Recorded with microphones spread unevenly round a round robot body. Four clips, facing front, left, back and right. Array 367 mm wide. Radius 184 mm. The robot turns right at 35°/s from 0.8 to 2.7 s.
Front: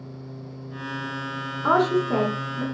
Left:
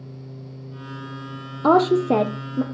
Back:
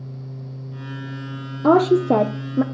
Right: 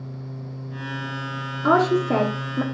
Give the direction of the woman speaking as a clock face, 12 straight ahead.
7 o'clock.